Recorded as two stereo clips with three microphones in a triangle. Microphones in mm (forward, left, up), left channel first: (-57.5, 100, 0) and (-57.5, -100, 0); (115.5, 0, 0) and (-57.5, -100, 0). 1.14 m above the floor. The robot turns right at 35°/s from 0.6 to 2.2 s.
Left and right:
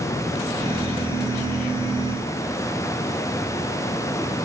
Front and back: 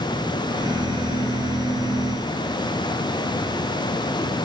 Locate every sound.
Only background noise.